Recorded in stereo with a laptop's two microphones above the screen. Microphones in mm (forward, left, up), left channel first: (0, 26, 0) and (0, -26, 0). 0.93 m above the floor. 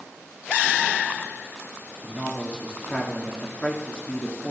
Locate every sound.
2.0 s a man speaking: 20° left (ahead or behind), 2 m